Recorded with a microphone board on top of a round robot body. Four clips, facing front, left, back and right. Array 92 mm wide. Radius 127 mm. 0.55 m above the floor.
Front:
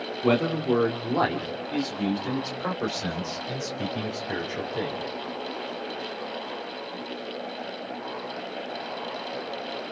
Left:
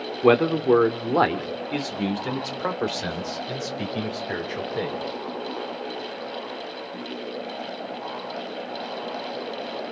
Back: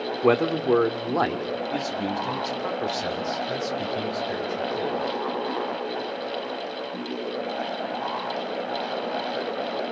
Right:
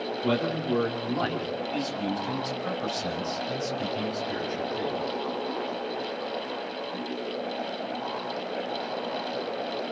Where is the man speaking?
115° left, 2.5 m; by 5.0 s 70° left, 4 m.